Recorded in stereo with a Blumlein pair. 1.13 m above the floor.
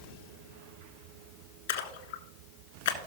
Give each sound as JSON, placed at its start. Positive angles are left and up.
{"t": 1.7, "sound": "a splash", "azimuth_deg": 60, "distance_m": 1.3}